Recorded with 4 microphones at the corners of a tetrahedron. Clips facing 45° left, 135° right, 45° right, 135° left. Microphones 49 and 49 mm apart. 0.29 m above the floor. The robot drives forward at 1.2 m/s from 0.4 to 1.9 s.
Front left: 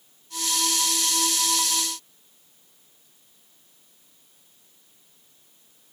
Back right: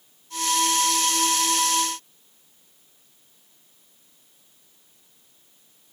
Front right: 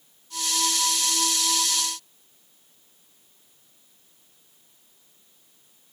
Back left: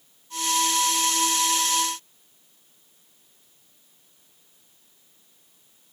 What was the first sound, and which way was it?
Only background noise.